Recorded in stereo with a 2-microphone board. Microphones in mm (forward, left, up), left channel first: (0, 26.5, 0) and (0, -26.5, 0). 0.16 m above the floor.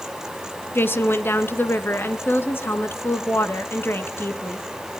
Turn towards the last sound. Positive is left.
turn(degrees=45)  # may be behind; listen again after turning